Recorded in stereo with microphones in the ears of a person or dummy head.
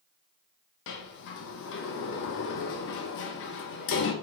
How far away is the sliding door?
About 0.6 m.